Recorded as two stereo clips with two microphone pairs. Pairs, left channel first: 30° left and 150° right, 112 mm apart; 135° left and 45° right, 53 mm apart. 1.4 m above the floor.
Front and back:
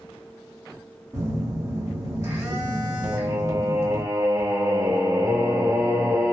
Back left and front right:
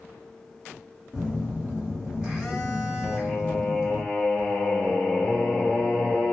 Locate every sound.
1.1 s a phone buzzing: 105° right, 1.2 m
3.0 s singing: 170° right, 0.9 m